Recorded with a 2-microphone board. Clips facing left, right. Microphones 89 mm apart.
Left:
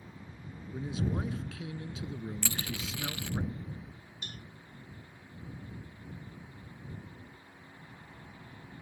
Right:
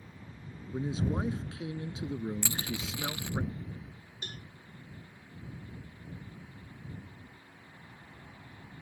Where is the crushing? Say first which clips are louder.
Right 1 dB; 15° right (ahead or behind).